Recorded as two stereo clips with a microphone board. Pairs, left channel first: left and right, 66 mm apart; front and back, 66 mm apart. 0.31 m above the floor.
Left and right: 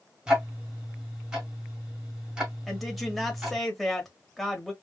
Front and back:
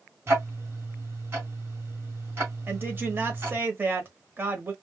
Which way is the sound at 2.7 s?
Straight behind.